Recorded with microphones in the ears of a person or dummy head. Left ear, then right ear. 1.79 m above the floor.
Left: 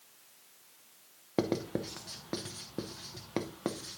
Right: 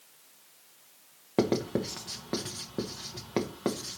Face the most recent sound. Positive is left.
turn(degrees=10)  # may be behind; listen again after turning